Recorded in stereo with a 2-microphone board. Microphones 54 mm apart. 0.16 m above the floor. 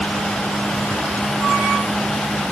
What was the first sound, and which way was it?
Only background noise.